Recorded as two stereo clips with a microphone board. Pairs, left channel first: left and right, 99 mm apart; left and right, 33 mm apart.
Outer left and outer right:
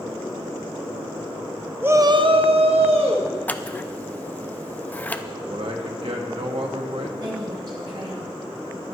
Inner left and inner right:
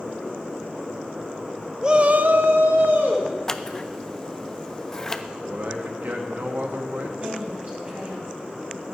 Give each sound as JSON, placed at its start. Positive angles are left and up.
{"t": 1.8, "sound": "a shout", "side_deg": -20, "distance_m": 0.8}
{"t": 3.5, "sound": "scissors", "side_deg": 15, "distance_m": 0.5}
{"t": 5.5, "sound": "a man speaking", "side_deg": -70, "distance_m": 1.9}
{"t": 7.2, "sound": "a woman speaking", "side_deg": -50, "distance_m": 2.5}